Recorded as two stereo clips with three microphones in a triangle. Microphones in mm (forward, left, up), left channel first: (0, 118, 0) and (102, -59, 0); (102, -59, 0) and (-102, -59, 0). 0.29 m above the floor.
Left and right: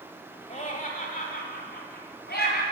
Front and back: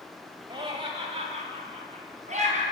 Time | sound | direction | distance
0.5 | laughter | 135° left | 1.0 m